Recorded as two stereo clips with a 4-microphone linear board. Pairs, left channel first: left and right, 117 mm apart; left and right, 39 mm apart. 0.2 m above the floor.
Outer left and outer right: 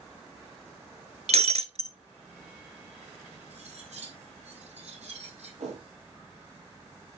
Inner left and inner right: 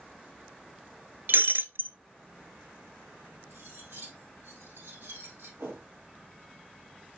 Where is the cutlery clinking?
70° right (ahead or behind), 4 m.